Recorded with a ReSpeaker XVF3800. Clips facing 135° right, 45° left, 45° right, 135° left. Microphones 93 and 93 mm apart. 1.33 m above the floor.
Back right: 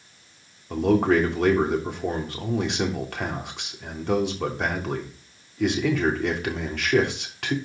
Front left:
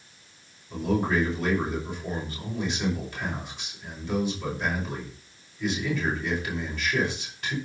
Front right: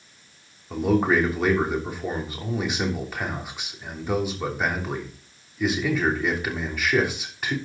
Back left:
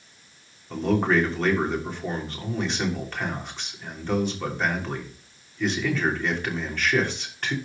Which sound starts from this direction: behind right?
A man speaking, at 0.7 s.